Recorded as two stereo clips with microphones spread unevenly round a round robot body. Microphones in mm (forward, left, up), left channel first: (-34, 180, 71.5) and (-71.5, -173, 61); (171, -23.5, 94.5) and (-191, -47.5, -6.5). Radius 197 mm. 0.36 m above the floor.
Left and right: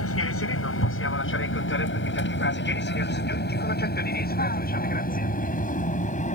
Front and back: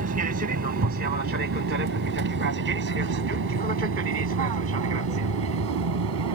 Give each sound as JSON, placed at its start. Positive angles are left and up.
{"t": 0.0, "sound": "an aircraft", "azimuth_deg": 130}